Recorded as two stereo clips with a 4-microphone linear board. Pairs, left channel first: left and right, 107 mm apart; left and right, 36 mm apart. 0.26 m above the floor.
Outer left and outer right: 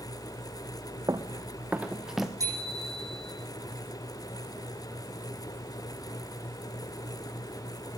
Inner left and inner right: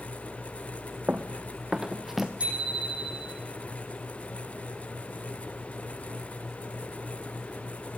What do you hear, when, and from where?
1.1 s running footsteps: 35° right (ahead or behind), 1.1 m; by 2.3 s centre (ahead or behind), 1.7 m
2.4 s a bicycle bell: 30° right (ahead or behind), 8.5 m